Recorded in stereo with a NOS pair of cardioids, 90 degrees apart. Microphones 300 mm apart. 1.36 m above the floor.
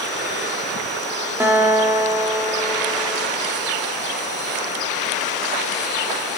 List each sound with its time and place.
1.4 s a guitar: 10° right, 4 m